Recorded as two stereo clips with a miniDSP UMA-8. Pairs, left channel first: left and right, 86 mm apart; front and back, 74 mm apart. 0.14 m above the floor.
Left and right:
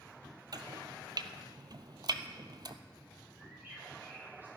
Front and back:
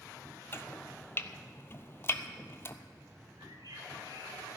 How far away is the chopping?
About 0.8 m.